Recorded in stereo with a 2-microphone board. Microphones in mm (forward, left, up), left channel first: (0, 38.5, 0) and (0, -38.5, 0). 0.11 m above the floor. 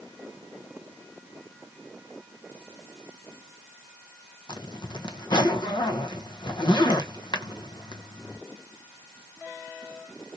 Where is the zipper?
75° left (ahead or behind), 0.7 m.